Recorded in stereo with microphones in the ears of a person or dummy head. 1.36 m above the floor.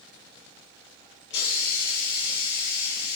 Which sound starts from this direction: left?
A hiss, at 1.3 s.